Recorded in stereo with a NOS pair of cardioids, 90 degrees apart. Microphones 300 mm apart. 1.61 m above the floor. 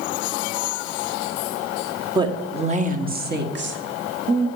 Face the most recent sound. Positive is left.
turn(degrees=-50)